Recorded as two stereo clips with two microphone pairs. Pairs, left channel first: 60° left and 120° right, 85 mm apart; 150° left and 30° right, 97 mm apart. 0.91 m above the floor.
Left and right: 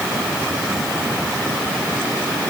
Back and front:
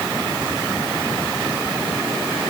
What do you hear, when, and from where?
Only background noise.